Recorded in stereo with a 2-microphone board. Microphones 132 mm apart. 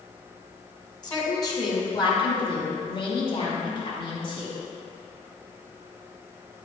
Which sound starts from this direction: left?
A woman speaking, at 1.0 s.